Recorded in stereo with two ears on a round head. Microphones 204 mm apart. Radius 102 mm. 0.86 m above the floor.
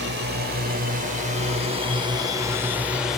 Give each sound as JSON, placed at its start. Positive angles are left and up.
{"t": 0.0, "sound": "a drone", "side_deg": -50}